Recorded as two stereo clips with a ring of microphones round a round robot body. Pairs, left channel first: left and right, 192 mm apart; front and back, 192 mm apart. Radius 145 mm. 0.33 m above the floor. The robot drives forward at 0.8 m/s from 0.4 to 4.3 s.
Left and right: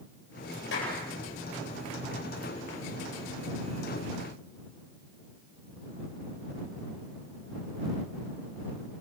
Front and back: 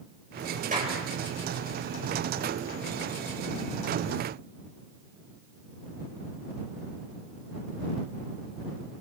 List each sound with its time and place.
0.7 s a clap: 130° left, 9 m; by 1.0 s 135° left, 9.5 m